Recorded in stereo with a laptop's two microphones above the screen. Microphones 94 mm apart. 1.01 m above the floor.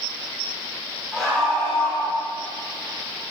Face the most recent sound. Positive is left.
turn(degrees=10)  # may be behind; listen again after turning